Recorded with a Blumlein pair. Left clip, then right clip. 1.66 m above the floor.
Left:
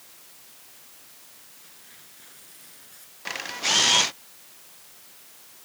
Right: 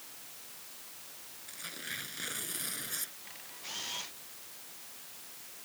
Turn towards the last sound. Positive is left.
turn(degrees=50)